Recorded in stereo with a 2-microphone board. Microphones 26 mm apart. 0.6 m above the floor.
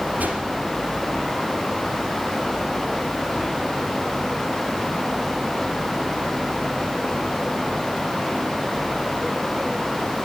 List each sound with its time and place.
0.2 s a whoosh: 85° right, 3 m